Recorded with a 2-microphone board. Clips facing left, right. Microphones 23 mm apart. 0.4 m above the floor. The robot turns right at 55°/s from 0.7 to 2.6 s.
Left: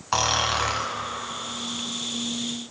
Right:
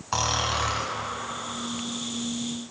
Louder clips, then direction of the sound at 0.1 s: Left 3 dB; 25° left (ahead or behind).